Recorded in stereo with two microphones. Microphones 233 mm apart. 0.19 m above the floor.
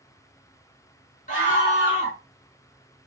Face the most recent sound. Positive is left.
turn(degrees=35)  # may be behind; listen again after turning